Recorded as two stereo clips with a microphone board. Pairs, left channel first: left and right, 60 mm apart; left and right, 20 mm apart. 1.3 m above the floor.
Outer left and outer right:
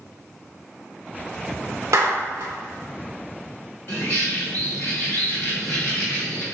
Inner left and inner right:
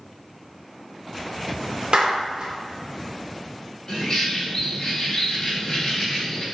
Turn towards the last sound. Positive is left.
turn(degrees=50)  # may be behind; listen again after turning